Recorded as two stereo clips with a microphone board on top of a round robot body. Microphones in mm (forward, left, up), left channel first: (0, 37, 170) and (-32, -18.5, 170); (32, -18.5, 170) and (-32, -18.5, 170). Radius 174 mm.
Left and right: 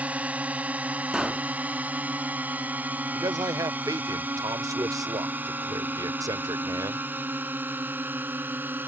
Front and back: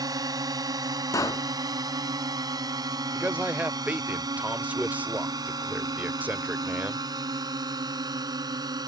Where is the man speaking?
115° right.